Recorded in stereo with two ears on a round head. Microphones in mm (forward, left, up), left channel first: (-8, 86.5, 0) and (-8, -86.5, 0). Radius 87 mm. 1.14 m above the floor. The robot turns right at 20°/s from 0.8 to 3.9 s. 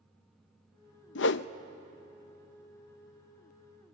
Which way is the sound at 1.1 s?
65° left (ahead or behind).